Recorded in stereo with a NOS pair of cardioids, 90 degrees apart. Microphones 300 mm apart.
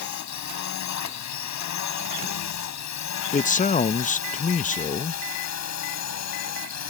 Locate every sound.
0.0 s a drone: 70° left; by 6.9 s 60° left
3.3 s a man speaking: 25° left